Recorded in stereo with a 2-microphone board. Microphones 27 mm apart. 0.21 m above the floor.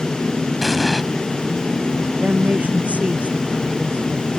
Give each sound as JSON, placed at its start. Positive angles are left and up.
{"t": 0.6, "sound": "an explosion", "side_deg": 0}
{"t": 2.2, "sound": "a woman speaking", "side_deg": -60}